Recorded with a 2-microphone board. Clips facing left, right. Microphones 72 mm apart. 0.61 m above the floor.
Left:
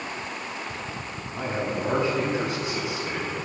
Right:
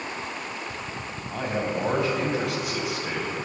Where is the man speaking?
80° right, 4 m.